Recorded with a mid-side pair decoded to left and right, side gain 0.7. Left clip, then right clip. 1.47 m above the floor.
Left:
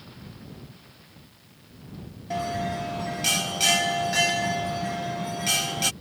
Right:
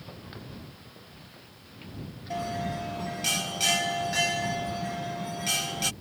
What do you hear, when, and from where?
2.3 s a bell: 15° left